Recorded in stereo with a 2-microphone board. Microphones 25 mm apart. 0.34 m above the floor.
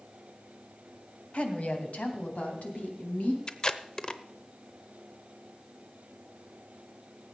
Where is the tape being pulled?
30° left (ahead or behind), 0.8 m.